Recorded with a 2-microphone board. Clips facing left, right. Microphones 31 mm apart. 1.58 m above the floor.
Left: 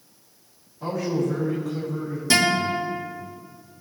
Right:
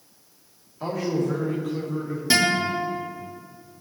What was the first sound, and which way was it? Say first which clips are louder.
A man speaking: even; 85° right.